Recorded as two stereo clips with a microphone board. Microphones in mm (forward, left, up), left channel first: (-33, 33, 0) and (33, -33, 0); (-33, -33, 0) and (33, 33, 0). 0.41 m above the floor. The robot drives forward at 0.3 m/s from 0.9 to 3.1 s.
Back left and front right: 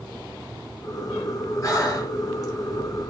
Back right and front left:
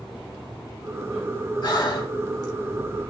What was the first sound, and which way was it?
Breathing, 175° right.